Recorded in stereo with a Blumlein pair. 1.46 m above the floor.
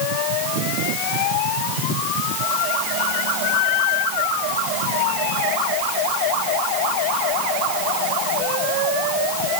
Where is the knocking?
No knocking in this recording.